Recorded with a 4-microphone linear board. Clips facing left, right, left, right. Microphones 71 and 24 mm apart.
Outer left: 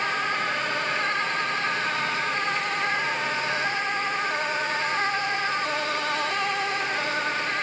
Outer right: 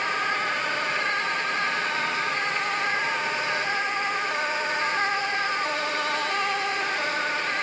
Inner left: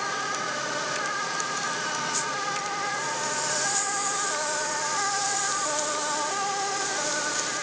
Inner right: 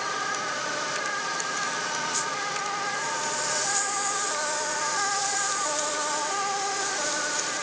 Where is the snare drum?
I don't hear a snare drum.